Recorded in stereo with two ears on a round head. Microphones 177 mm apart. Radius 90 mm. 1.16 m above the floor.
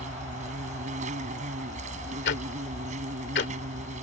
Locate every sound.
0.0 s an insect: 35° right (ahead or behind)
2.2 s ticking: 55° left (ahead or behind)